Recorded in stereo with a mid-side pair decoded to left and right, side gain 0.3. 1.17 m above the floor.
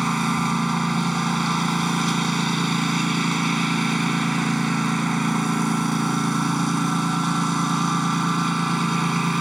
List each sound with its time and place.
0.0 s a lawn mower: 10° right